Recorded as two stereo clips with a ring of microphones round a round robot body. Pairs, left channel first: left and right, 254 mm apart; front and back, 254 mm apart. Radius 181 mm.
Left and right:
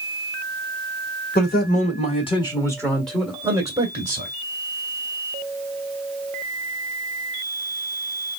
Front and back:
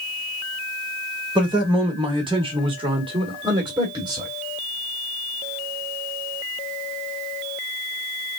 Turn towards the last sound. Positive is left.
turn(degrees=-120)